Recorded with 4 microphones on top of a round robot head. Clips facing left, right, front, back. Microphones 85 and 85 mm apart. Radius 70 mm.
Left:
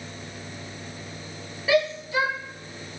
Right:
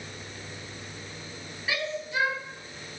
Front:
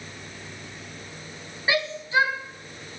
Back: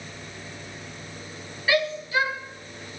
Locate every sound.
1.7 s a shout: 65° left, 4.5 m